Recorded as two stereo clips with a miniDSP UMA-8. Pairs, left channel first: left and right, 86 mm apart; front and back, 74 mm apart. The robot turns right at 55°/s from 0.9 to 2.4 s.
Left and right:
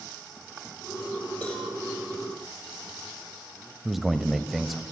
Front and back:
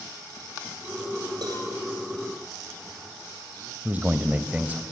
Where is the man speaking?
175° right, 1.0 m.